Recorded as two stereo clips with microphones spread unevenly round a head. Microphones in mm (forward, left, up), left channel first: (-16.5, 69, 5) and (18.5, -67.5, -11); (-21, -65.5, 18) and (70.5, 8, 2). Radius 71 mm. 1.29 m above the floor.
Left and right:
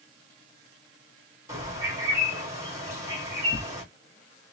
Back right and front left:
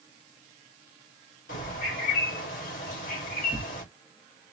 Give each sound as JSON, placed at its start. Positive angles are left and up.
{"t": 1.5, "sound": "a bird", "azimuth_deg": -145, "distance_m": 2.0}
{"t": 3.5, "sound": "tearing paper", "azimuth_deg": 145, "distance_m": 1.0}